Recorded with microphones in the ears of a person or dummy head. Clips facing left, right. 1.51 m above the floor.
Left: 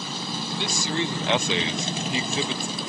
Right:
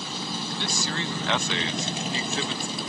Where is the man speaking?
15° left (ahead or behind).